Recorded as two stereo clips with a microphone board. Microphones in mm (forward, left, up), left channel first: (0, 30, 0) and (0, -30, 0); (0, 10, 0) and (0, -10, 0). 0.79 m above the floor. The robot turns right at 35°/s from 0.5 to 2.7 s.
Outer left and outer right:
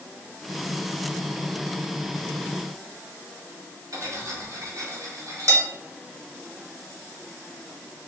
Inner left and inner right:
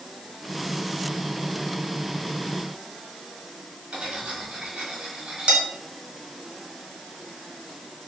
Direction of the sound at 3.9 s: 80° right.